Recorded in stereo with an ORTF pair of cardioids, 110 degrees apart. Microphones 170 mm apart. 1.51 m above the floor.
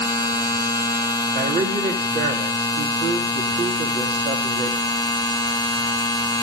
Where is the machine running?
25° left, 1.8 m.